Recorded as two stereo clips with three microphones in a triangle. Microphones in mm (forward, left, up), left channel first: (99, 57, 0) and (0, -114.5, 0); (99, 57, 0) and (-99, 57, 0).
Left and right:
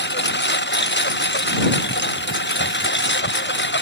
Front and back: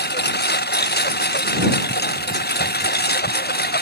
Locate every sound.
0.0 s a lawn mower: 35° left